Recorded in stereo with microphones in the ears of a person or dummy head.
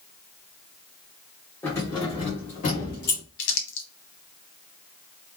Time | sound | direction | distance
1.6 | keys jangling | 10° left (ahead or behind) | 1.1 m
3.4 | crumpling | 65° left (ahead or behind) | 1.4 m